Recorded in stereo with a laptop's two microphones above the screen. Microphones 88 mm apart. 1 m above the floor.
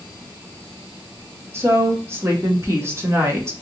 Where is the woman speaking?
25° right (ahead or behind), 0.7 m.